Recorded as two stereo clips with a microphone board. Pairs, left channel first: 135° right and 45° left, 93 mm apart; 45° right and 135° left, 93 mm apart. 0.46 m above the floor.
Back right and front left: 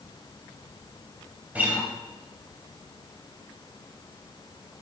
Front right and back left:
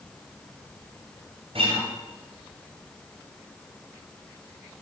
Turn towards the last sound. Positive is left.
turn(degrees=120)